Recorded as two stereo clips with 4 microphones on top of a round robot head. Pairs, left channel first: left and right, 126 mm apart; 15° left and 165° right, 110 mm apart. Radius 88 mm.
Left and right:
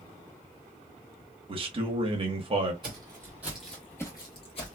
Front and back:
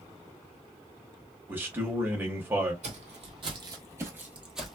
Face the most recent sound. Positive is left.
turn(degrees=100)